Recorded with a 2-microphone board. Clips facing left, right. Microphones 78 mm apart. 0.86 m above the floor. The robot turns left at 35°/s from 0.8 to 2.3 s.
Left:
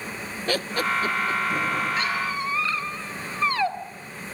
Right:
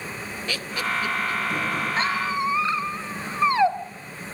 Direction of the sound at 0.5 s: 45° left (ahead or behind).